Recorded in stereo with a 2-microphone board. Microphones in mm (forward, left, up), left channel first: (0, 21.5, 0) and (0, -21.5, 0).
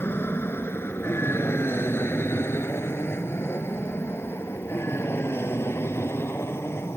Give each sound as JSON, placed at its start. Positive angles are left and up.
{"t": 0.0, "sound": "an aircraft", "side_deg": 65}